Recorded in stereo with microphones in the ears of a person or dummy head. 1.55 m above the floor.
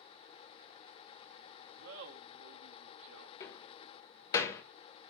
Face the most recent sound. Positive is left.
turn(degrees=20)  # may be behind; listen again after turning